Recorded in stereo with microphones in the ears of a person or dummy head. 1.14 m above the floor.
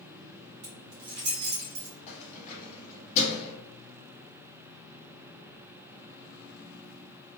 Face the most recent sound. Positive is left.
turn(degrees=40)  # may be behind; listen again after turning